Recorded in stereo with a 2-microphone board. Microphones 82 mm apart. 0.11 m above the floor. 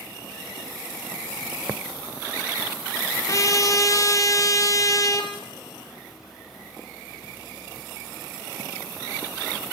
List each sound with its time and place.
3.3 s a trumpet: 40° left (ahead or behind), 2.5 m